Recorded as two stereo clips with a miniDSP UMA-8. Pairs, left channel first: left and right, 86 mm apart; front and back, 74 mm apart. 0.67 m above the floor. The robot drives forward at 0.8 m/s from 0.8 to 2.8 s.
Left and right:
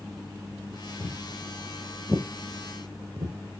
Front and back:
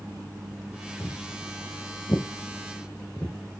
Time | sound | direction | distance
1.0 | footsteps | 30° left | 1.6 m